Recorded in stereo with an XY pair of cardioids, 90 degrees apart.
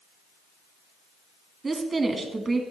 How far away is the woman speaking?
About 1.8 m.